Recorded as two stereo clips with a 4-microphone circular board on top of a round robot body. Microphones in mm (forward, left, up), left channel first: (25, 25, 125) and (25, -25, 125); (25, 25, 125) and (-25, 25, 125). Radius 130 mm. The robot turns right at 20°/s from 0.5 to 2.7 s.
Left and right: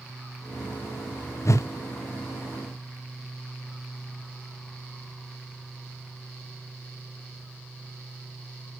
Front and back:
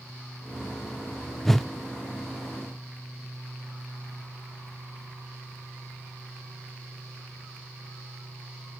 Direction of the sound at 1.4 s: 85° left.